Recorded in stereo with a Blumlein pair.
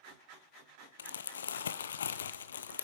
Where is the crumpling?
65° left, 0.7 m.